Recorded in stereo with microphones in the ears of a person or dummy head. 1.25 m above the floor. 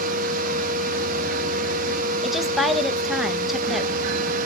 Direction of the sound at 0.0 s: 45° right (ahead or behind).